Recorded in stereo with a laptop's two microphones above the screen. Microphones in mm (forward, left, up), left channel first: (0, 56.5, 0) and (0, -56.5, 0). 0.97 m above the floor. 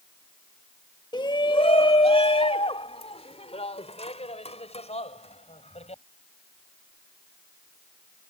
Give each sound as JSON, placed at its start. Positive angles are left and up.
{"t": 1.1, "sound": "a shout", "side_deg": 40}